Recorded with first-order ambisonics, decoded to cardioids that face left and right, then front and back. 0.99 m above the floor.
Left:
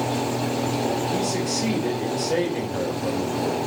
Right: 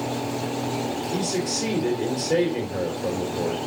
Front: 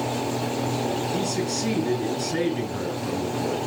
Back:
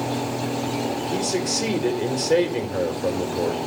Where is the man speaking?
Straight behind, 4 m.